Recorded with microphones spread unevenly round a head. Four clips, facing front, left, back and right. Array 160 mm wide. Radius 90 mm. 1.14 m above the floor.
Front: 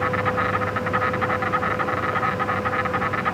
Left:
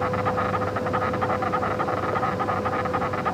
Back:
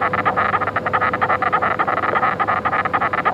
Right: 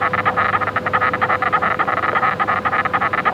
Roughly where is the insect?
Behind right.